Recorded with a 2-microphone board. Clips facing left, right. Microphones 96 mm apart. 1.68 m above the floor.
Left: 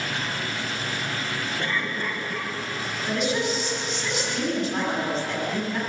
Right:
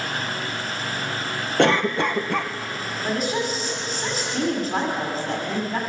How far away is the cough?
About 1.5 m.